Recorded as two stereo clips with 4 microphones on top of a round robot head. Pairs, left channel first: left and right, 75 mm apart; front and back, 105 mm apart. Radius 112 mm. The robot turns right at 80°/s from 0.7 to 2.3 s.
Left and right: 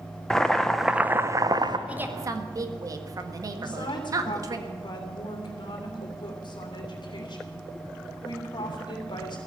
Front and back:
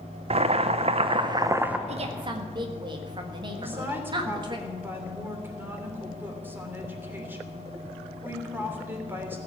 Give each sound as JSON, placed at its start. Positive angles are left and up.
{"t": 0.3, "sound": "boiling", "azimuth_deg": 170, "distance_m": 0.9}
{"t": 1.9, "sound": "a woman speaking", "azimuth_deg": -165, "distance_m": 1.6}
{"t": 3.6, "sound": "a woman speaking", "azimuth_deg": 105, "distance_m": 3.0}